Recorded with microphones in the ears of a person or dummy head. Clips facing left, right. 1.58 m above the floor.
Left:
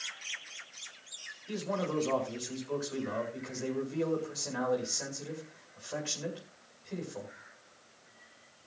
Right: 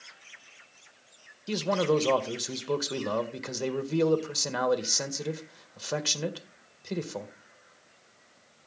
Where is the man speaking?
80° right, 1.6 m.